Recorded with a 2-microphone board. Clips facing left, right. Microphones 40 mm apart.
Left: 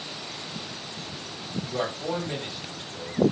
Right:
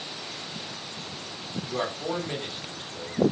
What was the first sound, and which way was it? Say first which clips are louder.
A man speaking: even; 25° right (ahead or behind).